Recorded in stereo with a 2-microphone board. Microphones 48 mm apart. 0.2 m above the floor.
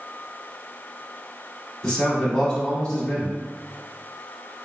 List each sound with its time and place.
1.8 s a man speaking: 20° left (ahead or behind), 1.1 m